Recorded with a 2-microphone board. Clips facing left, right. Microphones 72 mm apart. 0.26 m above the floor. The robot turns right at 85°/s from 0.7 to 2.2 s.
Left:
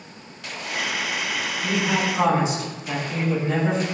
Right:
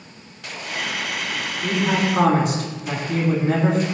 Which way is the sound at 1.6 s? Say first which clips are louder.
Right 3 dB; 160° right.